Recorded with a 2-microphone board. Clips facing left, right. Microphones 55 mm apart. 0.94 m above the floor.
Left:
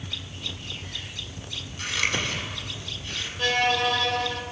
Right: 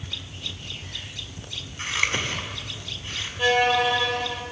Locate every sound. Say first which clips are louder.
1.8 s scissors: right 1 dB; 25° right (ahead or behind), 6 m
3.4 s a violin: right 3 dB; 10° right (ahead or behind), 4 m